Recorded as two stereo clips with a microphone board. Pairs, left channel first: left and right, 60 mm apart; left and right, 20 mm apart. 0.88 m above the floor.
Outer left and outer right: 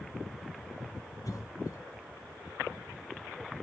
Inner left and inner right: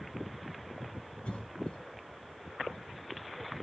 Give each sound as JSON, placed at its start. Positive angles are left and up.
{"t": 1.2, "sound": "a cough", "side_deg": 70, "distance_m": 3.0}